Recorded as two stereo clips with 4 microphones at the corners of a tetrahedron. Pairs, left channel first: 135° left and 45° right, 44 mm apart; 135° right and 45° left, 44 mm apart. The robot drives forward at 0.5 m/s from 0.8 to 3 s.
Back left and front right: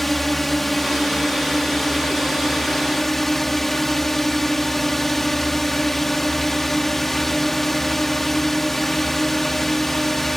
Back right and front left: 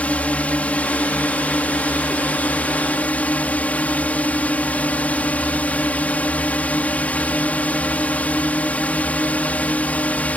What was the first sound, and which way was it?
A drone, 145° right.